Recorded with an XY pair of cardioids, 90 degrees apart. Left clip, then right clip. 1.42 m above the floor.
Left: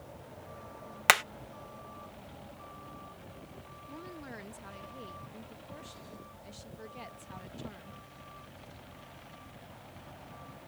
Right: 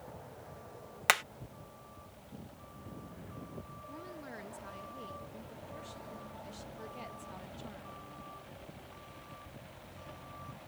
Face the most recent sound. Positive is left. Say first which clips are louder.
# left 2 dB
turn(degrees=20)